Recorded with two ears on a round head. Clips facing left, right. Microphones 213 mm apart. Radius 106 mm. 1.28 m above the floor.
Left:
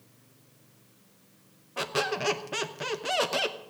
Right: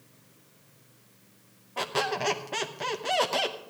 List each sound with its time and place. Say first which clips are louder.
1.8 s a squeak: even; 10° left (ahead or behind), 0.7 m